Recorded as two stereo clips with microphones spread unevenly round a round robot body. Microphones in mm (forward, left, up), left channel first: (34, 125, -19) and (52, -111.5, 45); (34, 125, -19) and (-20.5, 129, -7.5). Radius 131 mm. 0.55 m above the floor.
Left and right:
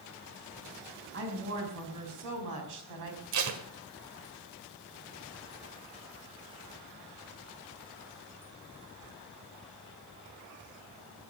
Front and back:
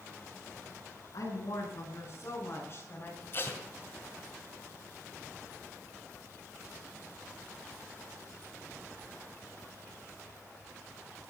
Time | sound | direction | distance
1.1 | a woman speaking | 55° right | 5 m
3.3 | tape being pulled | 75° right | 1.8 m